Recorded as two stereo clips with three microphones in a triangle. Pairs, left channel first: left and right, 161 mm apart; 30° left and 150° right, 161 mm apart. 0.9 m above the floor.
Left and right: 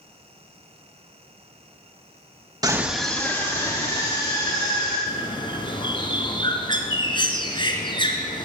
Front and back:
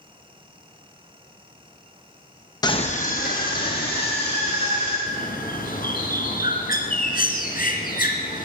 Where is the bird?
35° left, 1.9 m.